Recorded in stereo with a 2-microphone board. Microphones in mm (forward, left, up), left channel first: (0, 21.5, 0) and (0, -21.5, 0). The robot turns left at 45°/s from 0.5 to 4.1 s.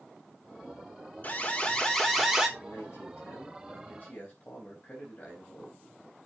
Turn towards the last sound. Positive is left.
turn(degrees=35)